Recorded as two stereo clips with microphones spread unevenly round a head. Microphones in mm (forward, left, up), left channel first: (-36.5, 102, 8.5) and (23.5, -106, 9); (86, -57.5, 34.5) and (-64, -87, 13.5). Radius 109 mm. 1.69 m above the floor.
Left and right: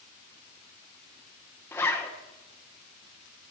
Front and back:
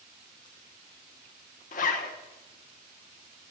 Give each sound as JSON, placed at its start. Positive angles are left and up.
{"t": 1.7, "sound": "a zipper", "azimuth_deg": 30, "distance_m": 1.0}